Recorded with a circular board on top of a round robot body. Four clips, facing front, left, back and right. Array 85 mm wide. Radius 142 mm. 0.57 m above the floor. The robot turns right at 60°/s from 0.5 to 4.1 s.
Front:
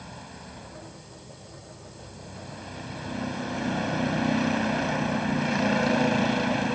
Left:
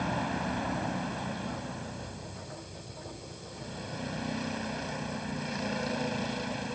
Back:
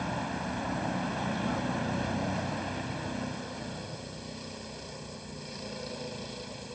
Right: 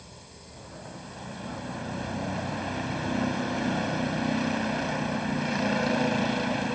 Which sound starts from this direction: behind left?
A vehicle, at 0.0 s.